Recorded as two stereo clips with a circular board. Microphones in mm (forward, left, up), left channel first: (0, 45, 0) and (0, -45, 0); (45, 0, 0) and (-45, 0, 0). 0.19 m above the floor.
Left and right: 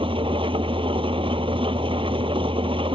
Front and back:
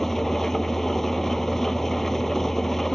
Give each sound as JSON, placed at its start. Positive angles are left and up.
{"t": 0.0, "sound": "an engine running", "azimuth_deg": -85}